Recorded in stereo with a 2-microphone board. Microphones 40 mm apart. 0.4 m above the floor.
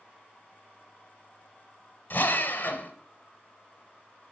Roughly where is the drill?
Left.